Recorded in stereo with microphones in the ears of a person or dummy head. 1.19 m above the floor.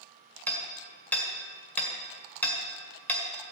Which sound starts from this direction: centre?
Hammering, at 0.5 s.